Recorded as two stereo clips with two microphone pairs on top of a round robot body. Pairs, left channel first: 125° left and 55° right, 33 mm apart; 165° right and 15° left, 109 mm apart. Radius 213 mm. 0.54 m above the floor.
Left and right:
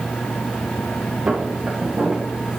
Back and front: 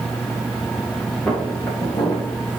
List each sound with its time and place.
1.3 s footsteps: 95° right, 2.5 m; by 2.6 s 120° right, 2.5 m